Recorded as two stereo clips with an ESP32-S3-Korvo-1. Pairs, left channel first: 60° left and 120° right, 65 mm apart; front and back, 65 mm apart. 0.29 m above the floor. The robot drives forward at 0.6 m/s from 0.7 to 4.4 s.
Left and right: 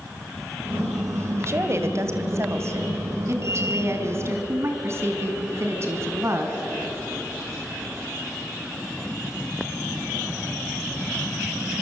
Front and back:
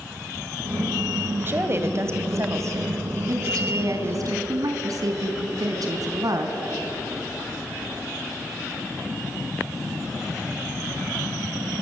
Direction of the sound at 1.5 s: 140° right.